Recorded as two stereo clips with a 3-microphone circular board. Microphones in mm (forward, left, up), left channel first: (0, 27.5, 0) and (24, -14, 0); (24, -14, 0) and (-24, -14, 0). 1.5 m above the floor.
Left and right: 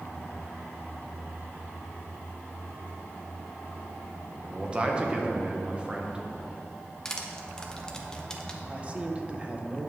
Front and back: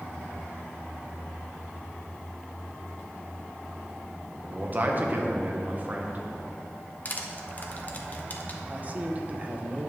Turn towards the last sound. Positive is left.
turn(degrees=-125)